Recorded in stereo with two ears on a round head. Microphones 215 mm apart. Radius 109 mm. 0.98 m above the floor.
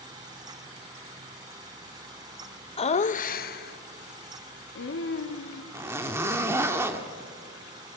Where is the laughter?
25° left (ahead or behind), 0.8 m; by 5.6 s 55° left (ahead or behind), 2 m.